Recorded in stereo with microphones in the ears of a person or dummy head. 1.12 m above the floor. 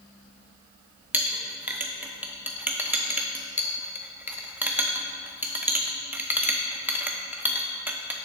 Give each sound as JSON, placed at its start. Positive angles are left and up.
{"t": 1.1, "sound": "a clink", "side_deg": -10, "distance_m": 0.6}